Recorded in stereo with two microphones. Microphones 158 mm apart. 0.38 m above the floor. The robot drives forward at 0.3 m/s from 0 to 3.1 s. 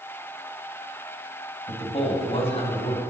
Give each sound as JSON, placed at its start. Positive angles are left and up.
{"t": 1.7, "sound": "a man speaking", "side_deg": 40, "distance_m": 2.0}